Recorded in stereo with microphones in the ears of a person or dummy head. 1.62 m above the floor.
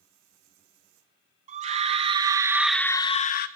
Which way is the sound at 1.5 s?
40° right (ahead or behind).